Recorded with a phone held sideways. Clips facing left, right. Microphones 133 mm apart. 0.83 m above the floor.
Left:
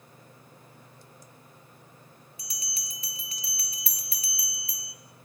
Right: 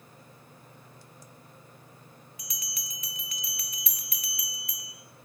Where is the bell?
30° left (ahead or behind), 1.0 m.